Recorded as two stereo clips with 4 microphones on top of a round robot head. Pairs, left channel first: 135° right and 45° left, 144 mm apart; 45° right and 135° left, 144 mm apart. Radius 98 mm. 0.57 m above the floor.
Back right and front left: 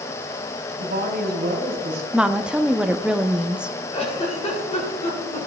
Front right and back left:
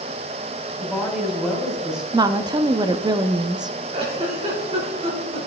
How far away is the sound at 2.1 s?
About 0.6 m.